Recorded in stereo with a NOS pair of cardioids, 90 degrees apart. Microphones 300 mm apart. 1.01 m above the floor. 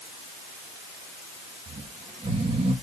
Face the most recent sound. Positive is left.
turn(degrees=-20)